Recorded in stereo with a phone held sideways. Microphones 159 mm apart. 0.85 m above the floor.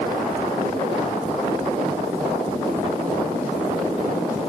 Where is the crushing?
No crushing in this recording.